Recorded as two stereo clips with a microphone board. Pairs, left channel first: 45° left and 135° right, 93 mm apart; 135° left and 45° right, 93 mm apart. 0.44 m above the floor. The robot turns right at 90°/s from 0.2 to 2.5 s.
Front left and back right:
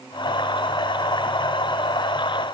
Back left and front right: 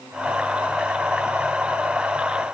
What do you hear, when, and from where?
Only background noise.